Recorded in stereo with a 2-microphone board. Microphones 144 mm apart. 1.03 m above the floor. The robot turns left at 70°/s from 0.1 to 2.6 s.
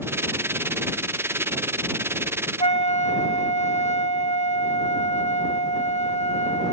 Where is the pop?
I don't hear a pop.